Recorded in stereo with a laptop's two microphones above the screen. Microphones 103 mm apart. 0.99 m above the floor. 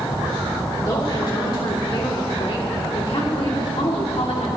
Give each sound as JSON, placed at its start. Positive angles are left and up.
{"t": 0.8, "sound": "a woman speaking", "side_deg": 45, "distance_m": 3.0}